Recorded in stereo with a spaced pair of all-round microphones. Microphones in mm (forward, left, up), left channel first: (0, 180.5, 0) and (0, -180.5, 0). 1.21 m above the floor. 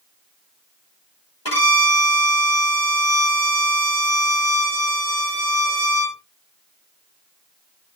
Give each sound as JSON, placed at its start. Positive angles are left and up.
{"t": 1.4, "sound": "a violin", "side_deg": 75, "distance_m": 6.0}